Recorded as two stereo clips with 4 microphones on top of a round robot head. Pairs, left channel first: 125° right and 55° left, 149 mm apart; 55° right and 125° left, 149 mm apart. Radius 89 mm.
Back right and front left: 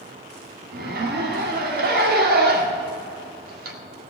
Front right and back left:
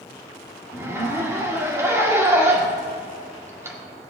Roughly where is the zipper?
Ahead left.